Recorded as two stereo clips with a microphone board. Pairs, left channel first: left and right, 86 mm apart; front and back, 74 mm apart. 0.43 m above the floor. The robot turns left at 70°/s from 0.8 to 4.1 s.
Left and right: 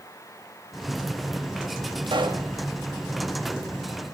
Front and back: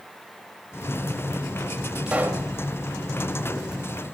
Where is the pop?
100° right, 0.6 m; by 2.5 s 130° right, 0.6 m.